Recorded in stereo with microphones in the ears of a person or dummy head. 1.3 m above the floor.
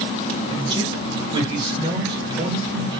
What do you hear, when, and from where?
0.5 s a man speaking: 25° right (ahead or behind), 2.5 m